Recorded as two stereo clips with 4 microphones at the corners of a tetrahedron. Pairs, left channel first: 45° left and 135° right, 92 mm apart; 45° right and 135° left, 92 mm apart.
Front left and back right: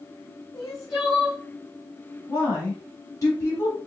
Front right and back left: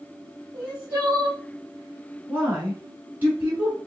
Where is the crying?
95° left, 2 m.